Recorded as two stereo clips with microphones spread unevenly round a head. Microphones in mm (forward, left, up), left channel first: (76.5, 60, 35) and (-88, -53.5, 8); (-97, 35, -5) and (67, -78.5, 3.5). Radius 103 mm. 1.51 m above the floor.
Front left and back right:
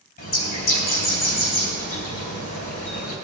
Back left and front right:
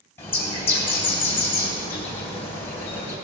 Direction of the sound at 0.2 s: 65° left.